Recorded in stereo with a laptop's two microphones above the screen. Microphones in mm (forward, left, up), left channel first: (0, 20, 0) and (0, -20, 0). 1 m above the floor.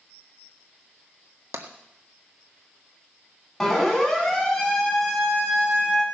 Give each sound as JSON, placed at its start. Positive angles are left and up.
{"t": 1.5, "sound": "tapping", "side_deg": -70, "distance_m": 1.6}
{"t": 3.6, "sound": "a siren", "side_deg": 5, "distance_m": 8.0}